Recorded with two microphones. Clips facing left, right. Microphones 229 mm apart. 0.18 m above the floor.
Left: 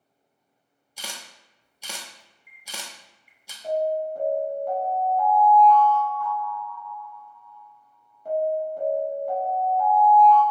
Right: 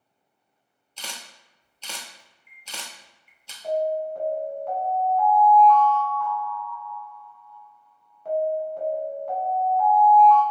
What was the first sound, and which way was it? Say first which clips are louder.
A camera shutter: left 1 dB; 10° left (ahead or behind).